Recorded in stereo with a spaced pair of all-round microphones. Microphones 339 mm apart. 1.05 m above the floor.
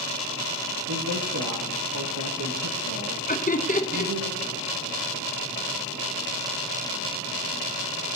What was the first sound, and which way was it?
A man speaking, 60° right (ahead or behind).